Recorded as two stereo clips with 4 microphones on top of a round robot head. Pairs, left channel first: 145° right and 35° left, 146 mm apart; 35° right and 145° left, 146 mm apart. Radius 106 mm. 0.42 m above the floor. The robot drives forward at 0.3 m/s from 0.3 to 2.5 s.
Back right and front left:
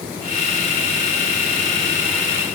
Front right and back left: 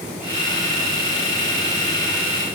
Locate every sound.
Only background noise.